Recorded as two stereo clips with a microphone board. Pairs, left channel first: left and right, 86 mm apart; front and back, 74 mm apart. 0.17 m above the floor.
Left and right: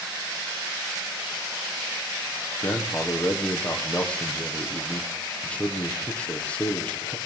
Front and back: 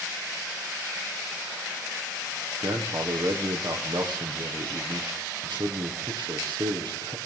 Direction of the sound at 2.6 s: 165° left.